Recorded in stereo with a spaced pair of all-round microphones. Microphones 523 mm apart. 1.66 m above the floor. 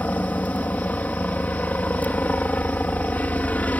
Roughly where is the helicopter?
Centre.